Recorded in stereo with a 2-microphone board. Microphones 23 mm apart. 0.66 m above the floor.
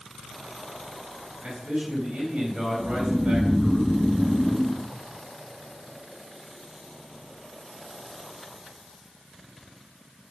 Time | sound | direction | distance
1.4 | a man speaking | 75° right (ahead or behind) | 4 m
2.8 | snoring | centre (ahead or behind) | 0.8 m